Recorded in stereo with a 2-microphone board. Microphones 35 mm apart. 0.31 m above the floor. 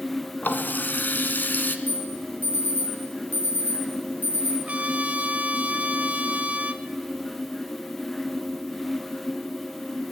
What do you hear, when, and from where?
0.4 s a running tap: 65° left (ahead or behind), 1.9 m
1.9 s an alarm: 55° left (ahead or behind), 7 m
4.7 s a trumpet: 40° right (ahead or behind), 1.6 m